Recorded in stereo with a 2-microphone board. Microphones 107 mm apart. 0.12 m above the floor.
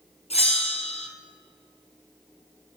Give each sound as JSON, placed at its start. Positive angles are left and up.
{"t": 0.3, "sound": "a bell", "side_deg": 65, "distance_m": 1.3}